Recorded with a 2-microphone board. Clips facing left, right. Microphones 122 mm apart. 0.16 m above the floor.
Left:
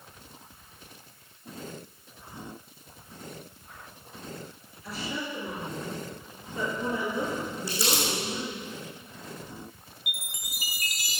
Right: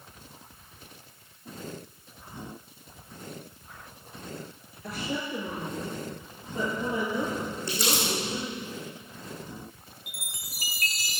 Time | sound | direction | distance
4.8 | a woman speaking | 55° right (ahead or behind) | 3.5 m
7.7 | crumpling | 5° left (ahead or behind) | 5 m
10.1 | a chime | 15° left (ahead or behind) | 0.8 m